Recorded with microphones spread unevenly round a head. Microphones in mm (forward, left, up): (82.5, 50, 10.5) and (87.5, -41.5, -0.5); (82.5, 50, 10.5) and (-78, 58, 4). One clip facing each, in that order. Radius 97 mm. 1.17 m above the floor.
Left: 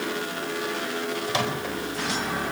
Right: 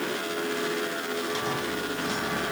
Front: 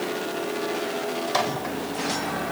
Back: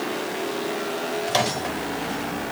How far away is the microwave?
About 4 m.